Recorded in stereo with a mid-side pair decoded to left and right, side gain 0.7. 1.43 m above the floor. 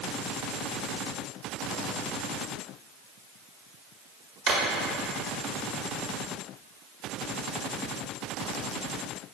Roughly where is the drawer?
Ahead right.